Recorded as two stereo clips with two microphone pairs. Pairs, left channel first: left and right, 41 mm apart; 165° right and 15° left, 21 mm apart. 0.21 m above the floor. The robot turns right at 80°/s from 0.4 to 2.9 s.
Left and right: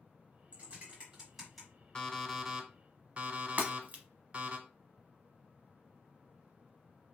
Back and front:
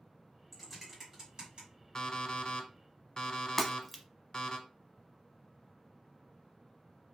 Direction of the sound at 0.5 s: 85° right.